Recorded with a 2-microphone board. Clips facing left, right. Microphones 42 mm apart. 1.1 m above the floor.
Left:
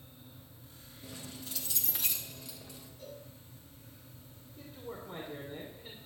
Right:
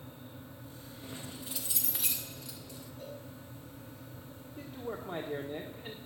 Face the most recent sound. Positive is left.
turn(degrees=-60)  # may be behind; listen again after turning